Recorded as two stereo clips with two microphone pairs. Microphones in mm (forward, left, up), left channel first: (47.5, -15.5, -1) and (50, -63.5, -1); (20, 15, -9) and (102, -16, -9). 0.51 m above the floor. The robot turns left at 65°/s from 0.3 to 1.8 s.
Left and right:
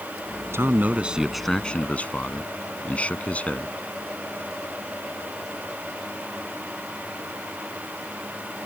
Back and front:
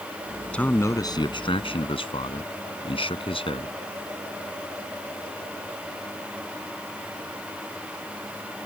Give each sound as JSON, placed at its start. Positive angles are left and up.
{"t": 0.5, "sound": "a man speaking", "azimuth_deg": -125}